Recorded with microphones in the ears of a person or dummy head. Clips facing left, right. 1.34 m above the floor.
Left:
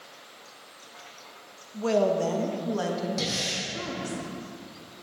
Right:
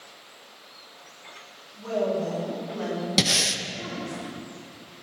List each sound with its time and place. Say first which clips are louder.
1.7 s a woman speaking: left 3 dB; 80° left, 1.5 m
3.2 s breathing: right 4 dB; 70° right (ahead or behind), 1.0 m